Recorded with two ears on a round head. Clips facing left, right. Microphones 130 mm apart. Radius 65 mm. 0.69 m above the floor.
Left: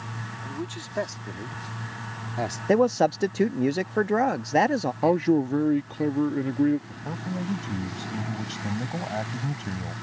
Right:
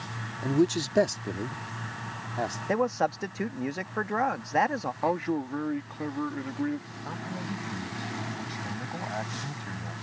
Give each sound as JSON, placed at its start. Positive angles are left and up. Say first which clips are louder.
{"t": 0.4, "sound": "a man speaking", "louder": "right 12 dB", "side_deg": -55}
{"t": 2.7, "sound": "a man speaking", "louder": "left 7 dB", "side_deg": 35}
{"t": 5.0, "sound": "a man speaking", "louder": "left 7 dB", "side_deg": 35}
{"t": 6.9, "sound": "a man speaking", "louder": "left 4 dB", "side_deg": 30}